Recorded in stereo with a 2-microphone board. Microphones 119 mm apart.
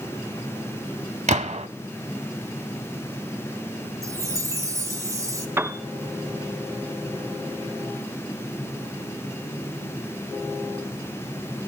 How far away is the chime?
About 1.6 m.